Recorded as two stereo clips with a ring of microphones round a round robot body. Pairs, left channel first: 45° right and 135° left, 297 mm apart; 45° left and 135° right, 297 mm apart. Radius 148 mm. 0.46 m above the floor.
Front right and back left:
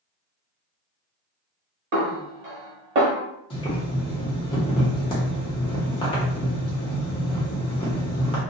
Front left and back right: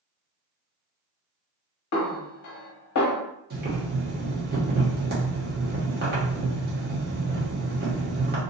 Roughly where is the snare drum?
Left.